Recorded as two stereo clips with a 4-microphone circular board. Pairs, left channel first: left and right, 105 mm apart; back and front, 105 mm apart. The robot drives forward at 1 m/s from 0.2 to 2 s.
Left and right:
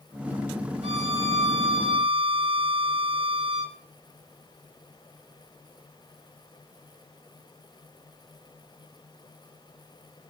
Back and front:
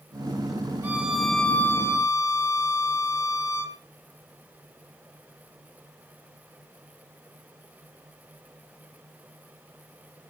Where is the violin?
75° right, 1.3 m; by 3.8 s 120° right, 1.5 m.